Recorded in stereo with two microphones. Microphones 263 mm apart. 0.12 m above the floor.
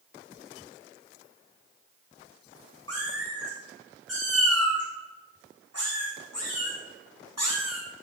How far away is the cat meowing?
About 6 m.